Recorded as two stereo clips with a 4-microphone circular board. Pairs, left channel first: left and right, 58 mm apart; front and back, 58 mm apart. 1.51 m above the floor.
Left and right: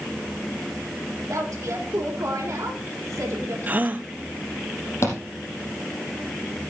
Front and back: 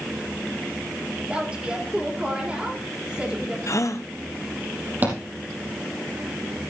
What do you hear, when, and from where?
1.3 s a woman speaking: 110° right, 3.5 m
3.7 s a gasp: 30° right, 0.6 m
5.0 s a thud: 125° left, 4.5 m